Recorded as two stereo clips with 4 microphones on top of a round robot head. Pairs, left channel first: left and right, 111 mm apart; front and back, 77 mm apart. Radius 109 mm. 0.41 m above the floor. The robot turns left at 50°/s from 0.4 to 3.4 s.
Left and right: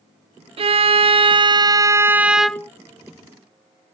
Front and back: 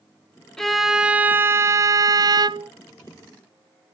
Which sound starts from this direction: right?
A violin, at 0.6 s.